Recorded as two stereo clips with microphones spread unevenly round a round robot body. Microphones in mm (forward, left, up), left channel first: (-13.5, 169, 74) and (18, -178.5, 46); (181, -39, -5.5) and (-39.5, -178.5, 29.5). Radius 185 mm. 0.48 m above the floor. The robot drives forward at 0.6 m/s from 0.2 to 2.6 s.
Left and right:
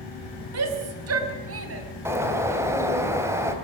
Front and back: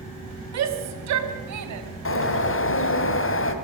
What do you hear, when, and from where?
0.5 s a shout: 130° right, 3 m; by 1.9 s 140° right, 3.5 m
2.0 s a bird: 5° right, 2.5 m